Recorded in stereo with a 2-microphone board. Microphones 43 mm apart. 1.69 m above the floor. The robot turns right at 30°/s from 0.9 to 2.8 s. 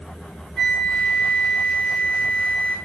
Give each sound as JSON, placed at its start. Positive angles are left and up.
{"t": 0.6, "sound": "a flute", "azimuth_deg": 140, "distance_m": 3.5}